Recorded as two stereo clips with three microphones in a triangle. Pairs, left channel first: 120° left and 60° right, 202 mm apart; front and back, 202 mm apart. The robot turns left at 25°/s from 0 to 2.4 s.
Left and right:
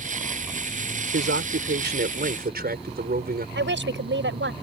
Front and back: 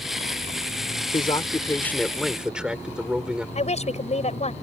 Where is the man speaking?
65° right; by 3.5 s 95° right.